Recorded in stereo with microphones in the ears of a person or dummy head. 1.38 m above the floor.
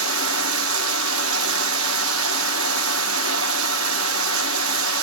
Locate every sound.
0.0 s running water: 75° right (ahead or behind), 1.0 m